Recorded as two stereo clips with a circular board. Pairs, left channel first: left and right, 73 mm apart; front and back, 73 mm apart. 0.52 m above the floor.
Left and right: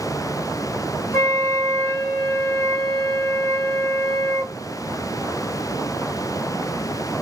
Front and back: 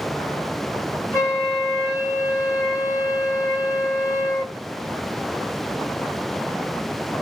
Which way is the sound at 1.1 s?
60° left.